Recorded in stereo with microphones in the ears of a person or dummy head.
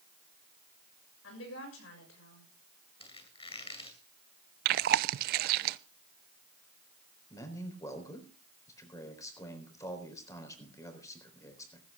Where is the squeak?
35° left (ahead or behind), 2 m.